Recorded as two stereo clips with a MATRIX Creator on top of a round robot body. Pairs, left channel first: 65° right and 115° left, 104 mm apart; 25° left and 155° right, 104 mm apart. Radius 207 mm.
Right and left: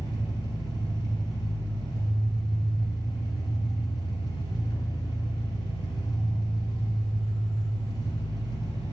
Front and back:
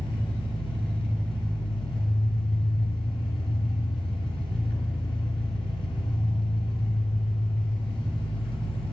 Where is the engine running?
15° right, 2.5 m.